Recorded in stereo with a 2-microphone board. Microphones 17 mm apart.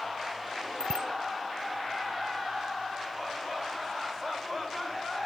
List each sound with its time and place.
0.8 s a bicycle bell: 60° right (ahead or behind)